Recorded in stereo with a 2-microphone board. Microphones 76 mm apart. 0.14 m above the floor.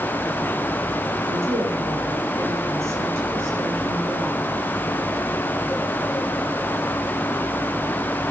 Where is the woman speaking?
40° right (ahead or behind), 7.5 m.